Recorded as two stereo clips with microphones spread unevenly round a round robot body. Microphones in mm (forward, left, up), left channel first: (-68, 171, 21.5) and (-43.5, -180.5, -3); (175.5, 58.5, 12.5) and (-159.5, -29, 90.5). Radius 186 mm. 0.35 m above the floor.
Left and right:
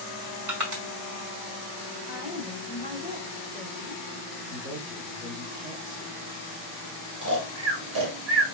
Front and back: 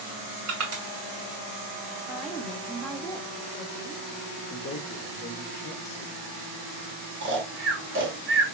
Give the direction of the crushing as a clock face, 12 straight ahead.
4 o'clock.